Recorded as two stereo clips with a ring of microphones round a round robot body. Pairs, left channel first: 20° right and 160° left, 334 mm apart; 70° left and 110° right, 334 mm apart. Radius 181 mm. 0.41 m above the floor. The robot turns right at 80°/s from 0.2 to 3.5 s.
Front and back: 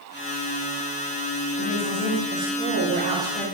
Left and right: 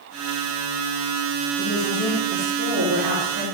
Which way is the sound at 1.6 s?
115° left.